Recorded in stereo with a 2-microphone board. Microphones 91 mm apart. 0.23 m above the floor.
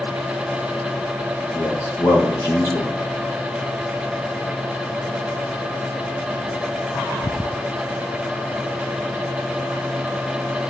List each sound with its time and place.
1.5 s a man speaking: 30° left (ahead or behind), 4.5 m